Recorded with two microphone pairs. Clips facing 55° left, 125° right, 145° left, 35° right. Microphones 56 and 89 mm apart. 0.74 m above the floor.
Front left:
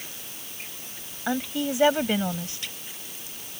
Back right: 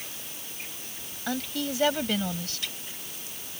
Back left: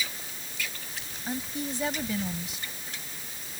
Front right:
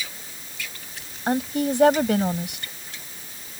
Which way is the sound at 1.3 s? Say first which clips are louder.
Front left 4 dB, front right 11 dB; 15° right.